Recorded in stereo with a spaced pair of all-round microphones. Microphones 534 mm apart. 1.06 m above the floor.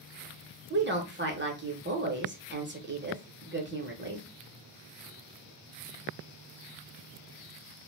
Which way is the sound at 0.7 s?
20° right (ahead or behind).